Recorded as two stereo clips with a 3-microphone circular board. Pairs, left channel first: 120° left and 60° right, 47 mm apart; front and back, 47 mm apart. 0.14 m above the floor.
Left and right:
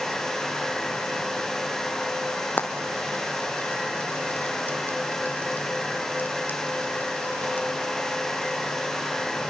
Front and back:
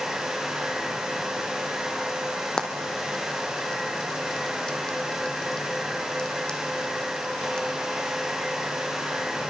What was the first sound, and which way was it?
Frying, 75° left.